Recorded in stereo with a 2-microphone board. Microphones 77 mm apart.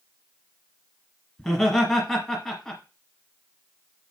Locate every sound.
1.4 s laughter: 5° left (ahead or behind), 1.8 m